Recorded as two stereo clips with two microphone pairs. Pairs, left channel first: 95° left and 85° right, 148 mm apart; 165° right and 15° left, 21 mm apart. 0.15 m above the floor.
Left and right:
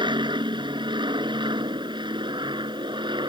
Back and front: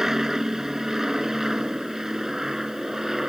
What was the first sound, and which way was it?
An aircraft, 40° right.